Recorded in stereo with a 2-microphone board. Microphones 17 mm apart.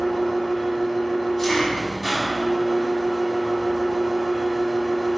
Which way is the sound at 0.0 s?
15° left (ahead or behind).